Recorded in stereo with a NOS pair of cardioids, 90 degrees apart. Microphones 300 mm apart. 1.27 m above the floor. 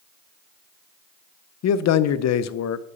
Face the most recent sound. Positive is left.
turn(degrees=60)